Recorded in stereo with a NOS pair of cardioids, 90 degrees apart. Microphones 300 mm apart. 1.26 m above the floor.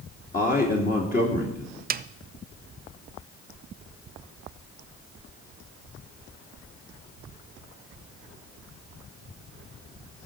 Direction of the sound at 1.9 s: 30° right.